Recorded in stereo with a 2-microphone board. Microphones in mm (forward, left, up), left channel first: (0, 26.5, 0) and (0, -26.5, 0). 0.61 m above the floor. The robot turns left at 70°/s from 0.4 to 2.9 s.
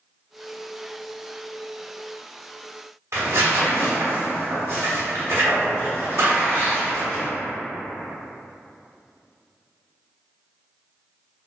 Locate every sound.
3.1 s tearing paper: 75° right (ahead or behind), 1.0 m